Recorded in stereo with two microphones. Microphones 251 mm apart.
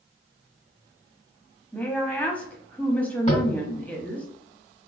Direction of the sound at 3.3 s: 25° left (ahead or behind).